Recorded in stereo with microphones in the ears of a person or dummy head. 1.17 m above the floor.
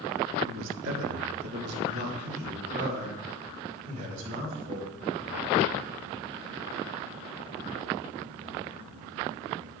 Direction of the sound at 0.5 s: 60° right (ahead or behind).